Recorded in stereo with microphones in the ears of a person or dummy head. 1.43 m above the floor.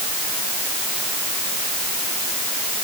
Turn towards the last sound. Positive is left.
No sound to turn to.